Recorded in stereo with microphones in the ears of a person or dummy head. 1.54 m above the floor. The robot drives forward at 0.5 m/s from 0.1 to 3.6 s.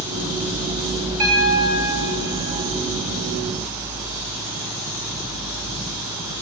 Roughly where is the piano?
Centre.